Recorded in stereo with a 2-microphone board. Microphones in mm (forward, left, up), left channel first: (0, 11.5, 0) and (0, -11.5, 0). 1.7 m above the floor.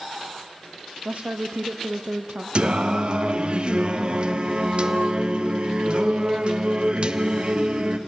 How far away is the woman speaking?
About 0.9 m.